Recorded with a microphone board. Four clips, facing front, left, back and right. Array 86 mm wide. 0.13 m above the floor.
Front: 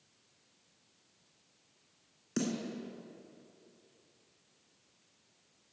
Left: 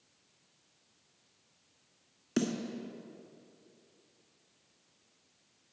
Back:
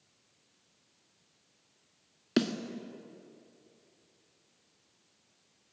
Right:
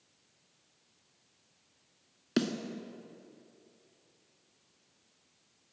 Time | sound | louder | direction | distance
2.4 | a snare drum | right 1 dB, back 6 dB | 155° right | 1.0 m